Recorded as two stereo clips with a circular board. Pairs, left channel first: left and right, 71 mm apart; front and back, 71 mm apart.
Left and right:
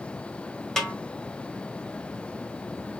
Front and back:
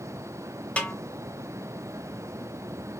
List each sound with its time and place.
0.8 s a snare drum: 20° left, 0.6 m